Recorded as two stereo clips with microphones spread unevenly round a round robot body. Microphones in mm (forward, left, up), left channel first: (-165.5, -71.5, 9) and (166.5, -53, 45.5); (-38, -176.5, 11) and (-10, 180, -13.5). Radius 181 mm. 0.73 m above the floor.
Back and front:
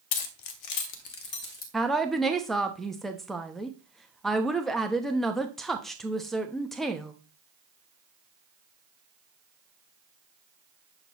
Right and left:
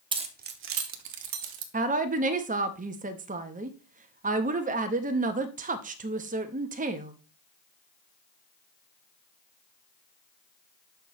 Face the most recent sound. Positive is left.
turn(degrees=110)